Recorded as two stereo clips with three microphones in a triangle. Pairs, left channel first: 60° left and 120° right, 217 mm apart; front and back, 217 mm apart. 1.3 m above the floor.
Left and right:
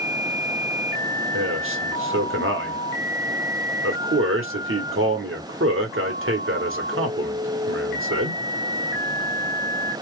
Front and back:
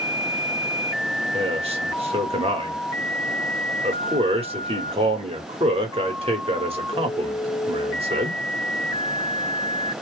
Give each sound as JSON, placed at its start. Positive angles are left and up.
{"t": 1.3, "sound": "a man speaking", "azimuth_deg": -120, "distance_m": 0.9}